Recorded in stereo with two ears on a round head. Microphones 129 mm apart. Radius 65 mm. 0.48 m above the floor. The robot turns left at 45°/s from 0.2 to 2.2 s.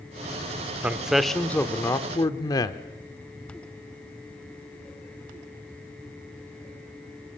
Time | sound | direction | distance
0.8 | a man speaking | 165° right | 1.1 m